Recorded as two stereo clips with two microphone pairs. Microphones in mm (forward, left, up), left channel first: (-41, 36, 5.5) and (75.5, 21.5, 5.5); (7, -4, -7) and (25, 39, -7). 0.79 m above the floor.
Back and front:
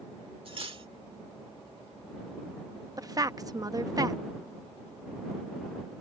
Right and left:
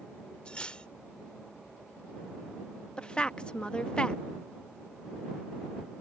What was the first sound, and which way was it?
Cutlery clinking, 45° right.